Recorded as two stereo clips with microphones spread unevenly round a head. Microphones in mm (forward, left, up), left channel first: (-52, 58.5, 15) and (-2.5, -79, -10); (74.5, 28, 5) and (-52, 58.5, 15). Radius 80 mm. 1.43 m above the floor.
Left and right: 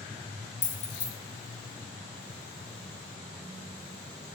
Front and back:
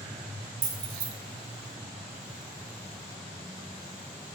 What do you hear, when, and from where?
0.6 s keys jangling: 140° left, 0.8 m